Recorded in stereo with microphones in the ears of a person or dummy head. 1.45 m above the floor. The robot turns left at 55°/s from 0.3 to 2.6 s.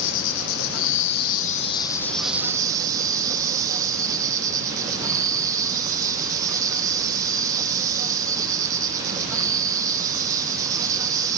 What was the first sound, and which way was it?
An insect, 105° left.